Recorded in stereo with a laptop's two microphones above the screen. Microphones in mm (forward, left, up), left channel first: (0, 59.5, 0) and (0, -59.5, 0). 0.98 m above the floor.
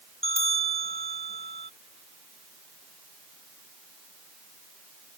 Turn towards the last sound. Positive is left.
turn(degrees=80)